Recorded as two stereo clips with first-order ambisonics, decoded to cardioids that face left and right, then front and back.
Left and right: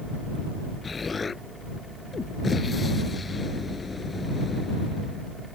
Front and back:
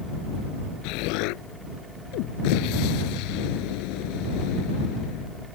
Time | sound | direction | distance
0.8 | an explosion | 15° left | ?